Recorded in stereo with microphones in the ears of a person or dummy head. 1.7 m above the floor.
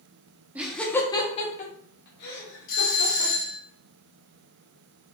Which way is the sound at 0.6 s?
10° right (ahead or behind).